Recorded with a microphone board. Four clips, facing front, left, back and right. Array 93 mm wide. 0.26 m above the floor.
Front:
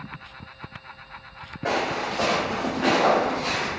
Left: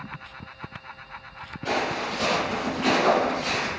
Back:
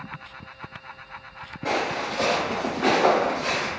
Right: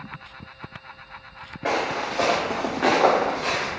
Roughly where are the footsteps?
Right.